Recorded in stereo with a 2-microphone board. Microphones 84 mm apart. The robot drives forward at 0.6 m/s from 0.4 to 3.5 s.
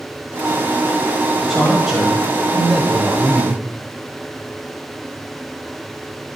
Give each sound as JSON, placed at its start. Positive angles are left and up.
{"t": 1.4, "sound": "a man speaking", "side_deg": -5, "distance_m": 2.0}